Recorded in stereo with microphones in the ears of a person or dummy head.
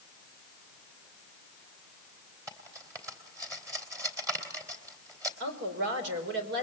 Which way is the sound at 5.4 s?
70° right (ahead or behind).